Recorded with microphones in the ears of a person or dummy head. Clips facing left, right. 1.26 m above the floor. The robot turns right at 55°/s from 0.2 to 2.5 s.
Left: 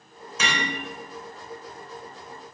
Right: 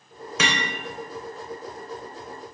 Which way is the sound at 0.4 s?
65° right (ahead or behind).